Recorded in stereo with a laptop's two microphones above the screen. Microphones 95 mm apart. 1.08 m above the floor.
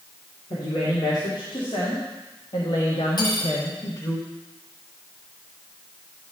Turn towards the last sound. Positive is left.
turn(degrees=50)  # may be behind; listen again after turning